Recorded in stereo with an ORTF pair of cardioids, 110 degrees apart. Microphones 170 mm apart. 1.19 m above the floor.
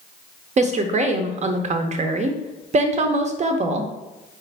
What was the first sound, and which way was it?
A woman speaking, 45° right.